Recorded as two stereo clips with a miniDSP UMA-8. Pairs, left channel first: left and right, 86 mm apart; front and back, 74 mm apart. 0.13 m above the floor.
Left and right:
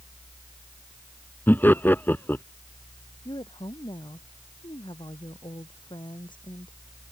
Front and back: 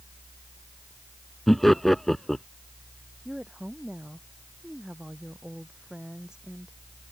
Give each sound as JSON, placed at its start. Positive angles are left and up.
{"t": 1.5, "sound": "laughter", "azimuth_deg": 80}
{"t": 3.2, "sound": "a woman speaking", "azimuth_deg": 100}